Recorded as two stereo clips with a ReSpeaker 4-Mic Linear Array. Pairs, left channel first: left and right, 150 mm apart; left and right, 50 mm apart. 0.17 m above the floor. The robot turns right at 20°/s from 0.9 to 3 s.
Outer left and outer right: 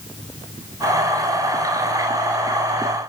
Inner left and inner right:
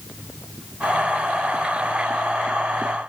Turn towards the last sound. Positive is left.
No sound to turn to.